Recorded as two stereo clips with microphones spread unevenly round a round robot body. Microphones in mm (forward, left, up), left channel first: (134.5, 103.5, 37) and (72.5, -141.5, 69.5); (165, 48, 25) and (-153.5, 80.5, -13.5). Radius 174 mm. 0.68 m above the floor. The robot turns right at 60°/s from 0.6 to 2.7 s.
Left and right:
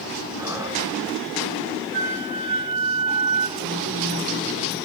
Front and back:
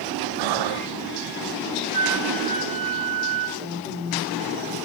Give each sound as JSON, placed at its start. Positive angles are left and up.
{"t": 0.4, "sound": "breathing", "azimuth_deg": 175, "distance_m": 0.7}
{"t": 1.9, "sound": "a flute", "azimuth_deg": -145, "distance_m": 2.5}
{"t": 3.6, "sound": "a woman speaking", "azimuth_deg": -100, "distance_m": 2.5}